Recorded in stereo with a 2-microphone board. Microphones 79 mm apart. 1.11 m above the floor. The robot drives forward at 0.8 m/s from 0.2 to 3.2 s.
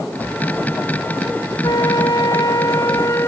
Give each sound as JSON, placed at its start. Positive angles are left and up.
{"t": 1.6, "sound": "a flute", "side_deg": 55}